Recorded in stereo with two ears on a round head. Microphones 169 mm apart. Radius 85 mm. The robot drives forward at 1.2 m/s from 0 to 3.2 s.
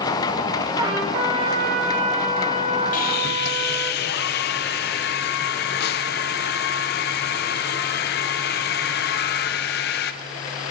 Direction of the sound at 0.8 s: 25° right (ahead or behind).